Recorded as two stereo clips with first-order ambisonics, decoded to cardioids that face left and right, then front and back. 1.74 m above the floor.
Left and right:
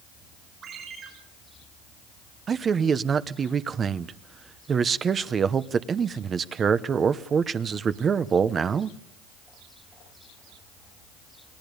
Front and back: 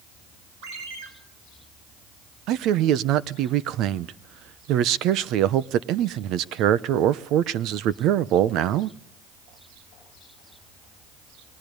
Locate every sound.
0.6 s a ringtone: 150° right, 7 m
2.5 s a man speaking: 155° right, 0.9 m